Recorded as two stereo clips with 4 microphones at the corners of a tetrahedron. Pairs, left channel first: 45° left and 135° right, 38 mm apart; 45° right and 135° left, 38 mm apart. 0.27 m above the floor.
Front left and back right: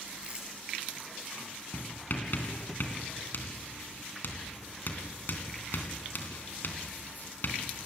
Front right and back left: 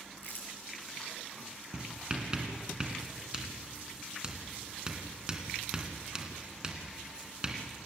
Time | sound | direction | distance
0.2 | crumpling | 75° right | 6.5 m
1.7 | writing | 70° left | 3 m